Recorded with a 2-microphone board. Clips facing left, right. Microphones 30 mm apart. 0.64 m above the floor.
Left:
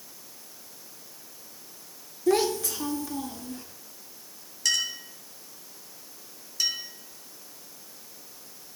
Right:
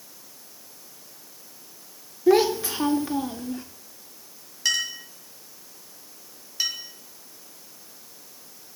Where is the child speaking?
15° right (ahead or behind), 0.8 m; by 3.6 s 25° right (ahead or behind), 0.9 m.